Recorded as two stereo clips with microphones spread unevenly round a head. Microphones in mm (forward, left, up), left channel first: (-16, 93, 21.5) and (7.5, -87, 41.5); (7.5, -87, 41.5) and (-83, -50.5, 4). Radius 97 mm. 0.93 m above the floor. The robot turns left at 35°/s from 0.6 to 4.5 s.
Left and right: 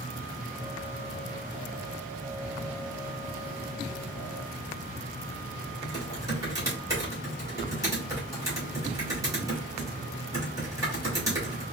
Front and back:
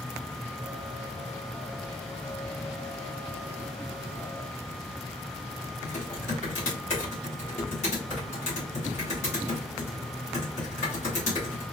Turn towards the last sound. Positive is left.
turn(degrees=-10)